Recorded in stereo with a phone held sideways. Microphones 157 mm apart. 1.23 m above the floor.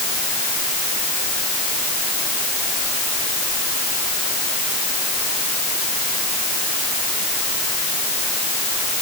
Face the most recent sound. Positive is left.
No sound to turn to.